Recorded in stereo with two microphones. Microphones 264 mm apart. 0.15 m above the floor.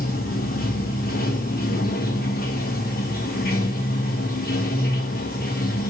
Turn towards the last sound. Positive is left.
turn(degrees=35)  # may be behind; listen again after turning